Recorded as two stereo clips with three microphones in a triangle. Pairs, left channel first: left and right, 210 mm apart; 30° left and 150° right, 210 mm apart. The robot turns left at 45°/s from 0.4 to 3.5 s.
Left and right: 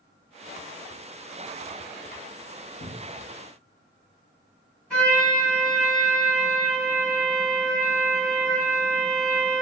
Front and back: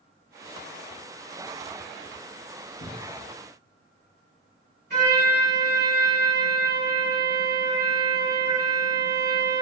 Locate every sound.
2.8 s a cupboard door: 65° left, 0.5 m; by 3.3 s 45° left, 0.5 m
4.9 s a trumpet: 175° left, 2.5 m